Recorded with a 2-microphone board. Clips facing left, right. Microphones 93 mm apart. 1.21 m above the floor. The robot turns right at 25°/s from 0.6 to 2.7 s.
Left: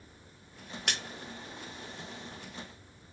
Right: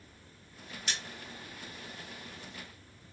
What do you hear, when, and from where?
0.9 s a splash: 60° left (ahead or behind), 0.5 m